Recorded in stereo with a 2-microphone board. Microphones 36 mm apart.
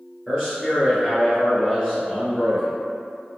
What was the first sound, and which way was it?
A man speaking, 15° right (ahead or behind).